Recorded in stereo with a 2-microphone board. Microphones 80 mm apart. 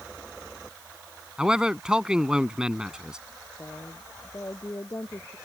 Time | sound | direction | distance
1.4 | a man speaking | 10° right (ahead or behind) | ?
3.6 | a woman speaking | 35° left (ahead or behind) | ?